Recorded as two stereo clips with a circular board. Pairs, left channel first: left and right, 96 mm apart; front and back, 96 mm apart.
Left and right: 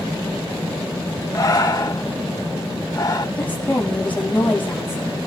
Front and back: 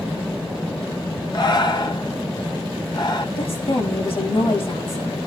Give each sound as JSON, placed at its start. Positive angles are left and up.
{"t": 1.3, "sound": "breathing", "azimuth_deg": 40, "distance_m": 1.1}
{"t": 3.4, "sound": "a woman speaking", "azimuth_deg": 15, "distance_m": 6.5}